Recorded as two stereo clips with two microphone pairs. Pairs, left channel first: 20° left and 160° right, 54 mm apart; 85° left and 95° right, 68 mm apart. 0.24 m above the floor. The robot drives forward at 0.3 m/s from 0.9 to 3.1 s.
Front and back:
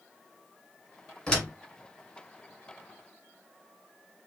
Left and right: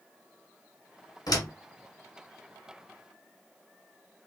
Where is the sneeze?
I don't hear a sneeze.